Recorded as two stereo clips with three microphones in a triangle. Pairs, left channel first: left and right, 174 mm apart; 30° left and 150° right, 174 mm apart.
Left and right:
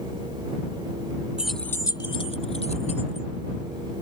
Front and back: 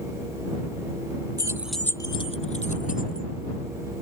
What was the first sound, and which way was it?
Keys jangling, 165° right.